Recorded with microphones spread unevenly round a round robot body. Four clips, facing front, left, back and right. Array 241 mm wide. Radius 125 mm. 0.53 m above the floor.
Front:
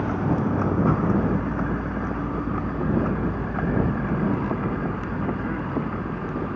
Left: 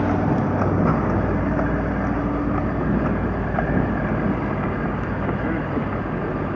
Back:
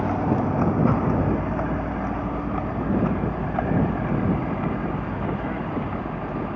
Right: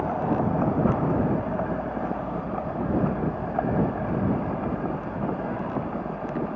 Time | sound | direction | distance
0.0 | a vehicle | 110° left | ?